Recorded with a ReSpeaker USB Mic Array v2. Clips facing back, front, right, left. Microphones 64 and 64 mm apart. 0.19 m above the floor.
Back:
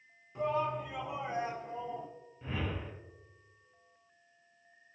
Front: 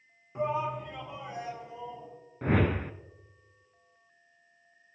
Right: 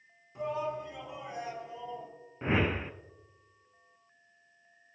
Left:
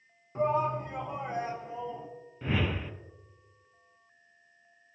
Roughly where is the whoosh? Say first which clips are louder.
Front 11 dB, right 2 dB; ahead right.